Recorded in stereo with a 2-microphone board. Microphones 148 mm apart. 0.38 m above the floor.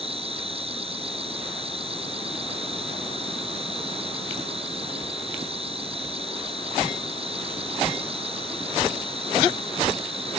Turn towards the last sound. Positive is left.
turn(degrees=-40)  # may be behind; listen again after turning